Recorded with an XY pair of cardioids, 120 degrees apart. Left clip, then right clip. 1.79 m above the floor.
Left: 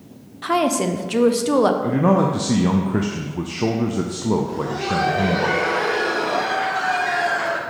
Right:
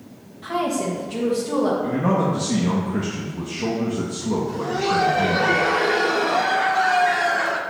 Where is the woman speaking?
70° left, 0.8 m.